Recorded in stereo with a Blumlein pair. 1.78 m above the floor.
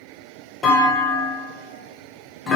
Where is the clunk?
20° left, 1.7 m.